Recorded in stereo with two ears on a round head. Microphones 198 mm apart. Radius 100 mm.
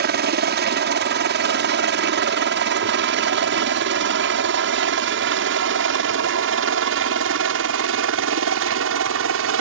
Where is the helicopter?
50° right (ahead or behind); by 9.6 s 70° right (ahead or behind).